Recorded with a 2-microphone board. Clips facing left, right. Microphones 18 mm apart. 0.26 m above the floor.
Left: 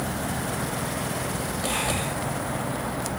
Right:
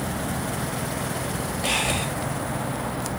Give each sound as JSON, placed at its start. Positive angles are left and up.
{"t": 1.6, "sound": "breathing", "side_deg": -60, "distance_m": 6.0}